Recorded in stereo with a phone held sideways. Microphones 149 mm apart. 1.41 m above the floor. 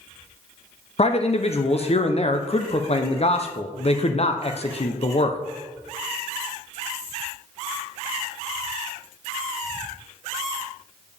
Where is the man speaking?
45° left (ahead or behind), 0.7 m.